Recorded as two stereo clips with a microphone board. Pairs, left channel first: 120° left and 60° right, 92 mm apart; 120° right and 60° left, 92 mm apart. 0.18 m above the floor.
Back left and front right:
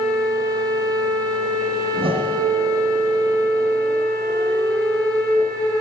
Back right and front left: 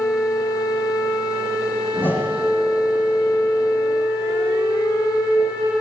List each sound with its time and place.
1.9 s a whoosh: 55° right, 8.5 m